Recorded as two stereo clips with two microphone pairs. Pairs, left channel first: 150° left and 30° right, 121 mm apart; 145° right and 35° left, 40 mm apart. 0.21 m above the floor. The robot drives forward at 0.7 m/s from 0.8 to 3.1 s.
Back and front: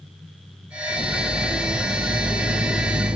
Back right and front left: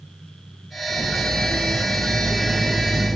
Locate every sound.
0.9 s cutlery clinking: 15° left, 5 m; by 3.2 s 20° left, 3.5 m